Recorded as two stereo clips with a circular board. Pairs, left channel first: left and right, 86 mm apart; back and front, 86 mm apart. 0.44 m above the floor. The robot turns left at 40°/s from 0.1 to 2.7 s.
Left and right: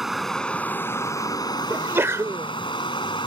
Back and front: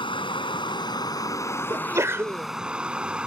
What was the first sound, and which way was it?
Running water, straight behind.